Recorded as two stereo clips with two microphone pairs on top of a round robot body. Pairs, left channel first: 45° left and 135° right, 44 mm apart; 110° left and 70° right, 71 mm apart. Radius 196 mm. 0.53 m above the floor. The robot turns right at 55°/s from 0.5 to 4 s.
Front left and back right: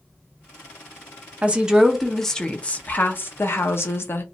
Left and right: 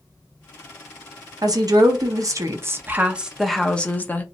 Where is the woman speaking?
85° right, 0.9 m; by 4.2 s 55° left, 0.9 m.